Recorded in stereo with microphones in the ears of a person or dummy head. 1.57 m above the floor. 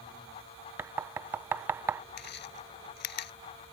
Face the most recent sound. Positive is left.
turn(degrees=60)  # may be behind; listen again after turning